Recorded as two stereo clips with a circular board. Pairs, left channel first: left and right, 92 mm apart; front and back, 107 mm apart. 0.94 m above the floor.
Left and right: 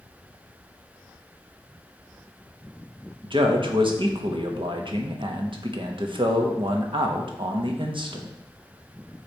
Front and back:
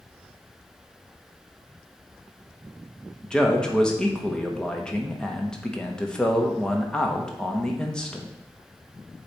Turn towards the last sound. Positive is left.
turn(degrees=-80)